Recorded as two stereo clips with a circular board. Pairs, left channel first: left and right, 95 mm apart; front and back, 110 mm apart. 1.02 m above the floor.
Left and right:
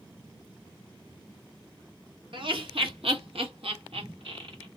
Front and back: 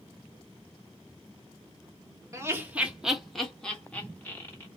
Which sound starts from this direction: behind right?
Laughter, at 2.3 s.